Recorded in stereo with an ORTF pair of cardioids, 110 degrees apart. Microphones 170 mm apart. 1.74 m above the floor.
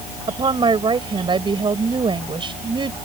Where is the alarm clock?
I don't hear an alarm clock.